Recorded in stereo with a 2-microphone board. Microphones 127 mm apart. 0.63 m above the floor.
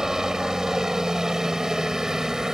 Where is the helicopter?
5° right (ahead or behind).